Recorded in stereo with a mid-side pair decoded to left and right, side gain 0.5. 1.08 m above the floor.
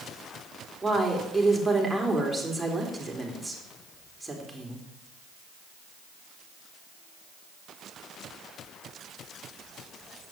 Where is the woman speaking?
10° right, 4 m.